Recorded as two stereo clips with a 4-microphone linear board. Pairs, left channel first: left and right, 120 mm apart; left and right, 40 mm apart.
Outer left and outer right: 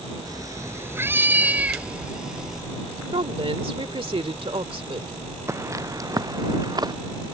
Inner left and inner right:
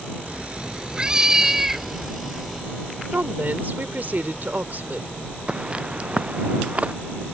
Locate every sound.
0.3 s a cat meowing: 30° right (ahead or behind); by 2.6 s 5° right (ahead or behind)
3.1 s a woman speaking: 45° right (ahead or behind)
5.5 s footsteps: 25° right (ahead or behind); by 6.9 s 35° right (ahead or behind)